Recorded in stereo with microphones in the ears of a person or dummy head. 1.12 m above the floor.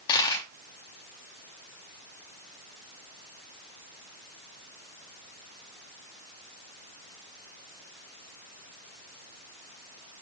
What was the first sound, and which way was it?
A dropped coin, 25° left (ahead or behind).